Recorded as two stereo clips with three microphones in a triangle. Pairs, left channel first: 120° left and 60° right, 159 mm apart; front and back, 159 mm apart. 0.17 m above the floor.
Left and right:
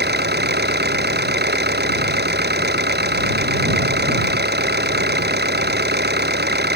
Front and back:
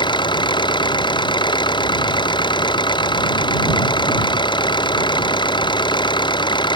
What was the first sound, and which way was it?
An engine running, 60° right.